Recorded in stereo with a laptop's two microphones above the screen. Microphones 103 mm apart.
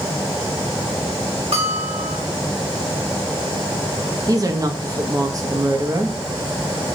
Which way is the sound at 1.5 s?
85° right.